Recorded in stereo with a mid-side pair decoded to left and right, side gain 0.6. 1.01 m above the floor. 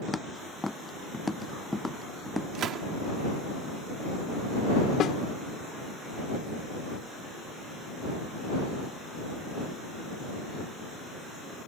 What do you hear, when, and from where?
0.1 s footsteps: 10° left
2.5 s a gunshot: 55° right
5.0 s a snare drum: 50° left